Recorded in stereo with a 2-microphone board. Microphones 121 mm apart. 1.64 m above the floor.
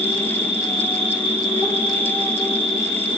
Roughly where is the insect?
Left.